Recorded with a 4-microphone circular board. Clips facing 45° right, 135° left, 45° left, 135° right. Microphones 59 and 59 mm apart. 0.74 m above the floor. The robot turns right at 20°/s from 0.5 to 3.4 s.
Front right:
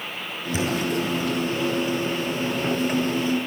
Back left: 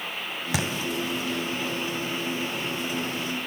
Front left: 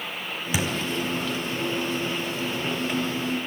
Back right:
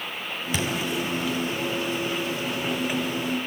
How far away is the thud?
About 3 m.